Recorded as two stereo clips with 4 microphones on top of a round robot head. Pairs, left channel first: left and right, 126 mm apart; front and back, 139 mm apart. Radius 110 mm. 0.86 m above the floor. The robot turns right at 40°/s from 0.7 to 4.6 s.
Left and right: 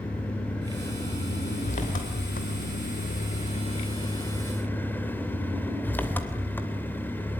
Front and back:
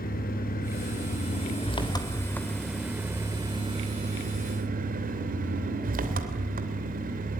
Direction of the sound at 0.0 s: 10° left.